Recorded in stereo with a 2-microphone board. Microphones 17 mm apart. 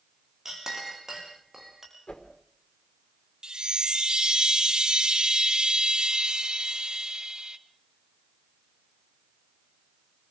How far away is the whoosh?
About 4.5 m.